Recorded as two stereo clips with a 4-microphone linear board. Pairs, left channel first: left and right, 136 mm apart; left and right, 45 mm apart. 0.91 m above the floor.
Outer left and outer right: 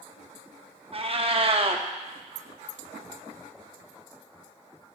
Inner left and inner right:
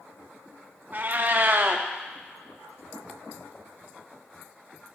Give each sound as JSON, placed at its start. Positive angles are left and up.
{"t": 0.9, "sound": "a cat meowing", "side_deg": -45, "distance_m": 0.6}